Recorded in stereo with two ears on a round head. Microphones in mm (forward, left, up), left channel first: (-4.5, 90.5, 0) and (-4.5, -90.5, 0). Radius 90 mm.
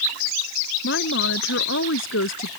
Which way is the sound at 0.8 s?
60° left (ahead or behind).